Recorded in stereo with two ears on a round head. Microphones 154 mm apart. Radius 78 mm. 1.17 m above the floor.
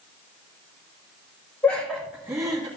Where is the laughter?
15° left (ahead or behind), 1.3 m; by 2.7 s 25° right (ahead or behind), 1.8 m.